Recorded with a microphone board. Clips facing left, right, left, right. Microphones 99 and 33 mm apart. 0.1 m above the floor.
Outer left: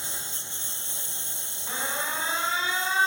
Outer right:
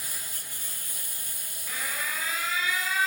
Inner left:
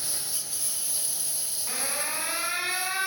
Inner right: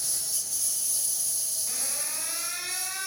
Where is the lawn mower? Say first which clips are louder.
Outer left 3 dB, even; 25° left (ahead or behind).